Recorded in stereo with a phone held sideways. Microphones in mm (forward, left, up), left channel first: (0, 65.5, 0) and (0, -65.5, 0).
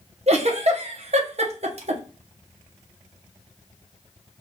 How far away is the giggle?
About 0.8 m.